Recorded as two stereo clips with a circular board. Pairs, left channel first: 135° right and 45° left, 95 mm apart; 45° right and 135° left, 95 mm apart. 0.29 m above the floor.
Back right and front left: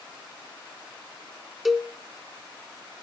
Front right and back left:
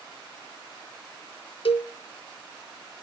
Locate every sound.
1.6 s a cowbell: 45° right, 0.7 m